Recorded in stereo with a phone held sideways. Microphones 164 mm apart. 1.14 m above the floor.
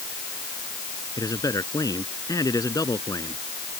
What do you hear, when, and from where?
1.2 s a man speaking: 20° left (ahead or behind)